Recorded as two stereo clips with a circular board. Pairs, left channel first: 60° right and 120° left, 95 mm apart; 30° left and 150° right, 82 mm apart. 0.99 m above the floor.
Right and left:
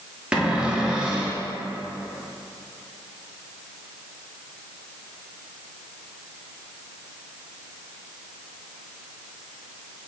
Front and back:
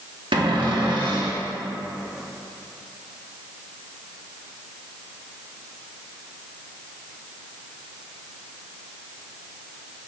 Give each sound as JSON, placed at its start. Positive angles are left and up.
{"t": 0.3, "sound": "a cupboard door", "azimuth_deg": -160, "distance_m": 1.2}